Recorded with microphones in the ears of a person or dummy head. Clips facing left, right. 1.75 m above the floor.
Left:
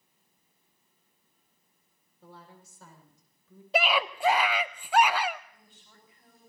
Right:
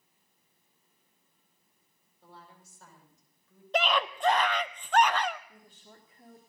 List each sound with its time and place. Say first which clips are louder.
2.2 s a woman speaking: left 3 dB; 80° left, 5 m; by 3.6 s 70° left (ahead or behind), 6.5 m
3.7 s a scream: left 1 dB; 5° left (ahead or behind), 0.6 m
5.5 s a woman speaking: right 5 dB; 50° right (ahead or behind), 3.5 m